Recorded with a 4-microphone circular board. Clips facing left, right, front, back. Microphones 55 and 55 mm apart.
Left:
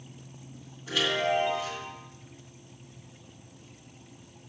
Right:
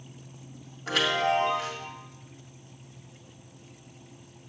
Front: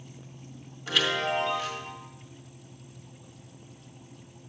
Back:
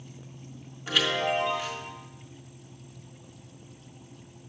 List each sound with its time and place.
0.9 s a chime: 100° right, 1.8 m